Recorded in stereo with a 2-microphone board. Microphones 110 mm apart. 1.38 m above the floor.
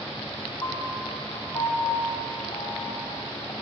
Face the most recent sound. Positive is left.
turn(degrees=35)  # may be behind; listen again after turning